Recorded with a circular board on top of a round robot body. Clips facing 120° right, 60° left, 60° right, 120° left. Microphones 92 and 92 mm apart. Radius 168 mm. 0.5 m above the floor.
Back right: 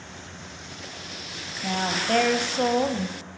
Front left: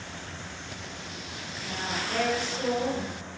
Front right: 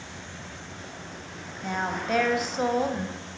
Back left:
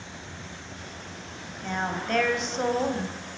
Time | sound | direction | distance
1.6 | a woman speaking | 145° right | 3.5 m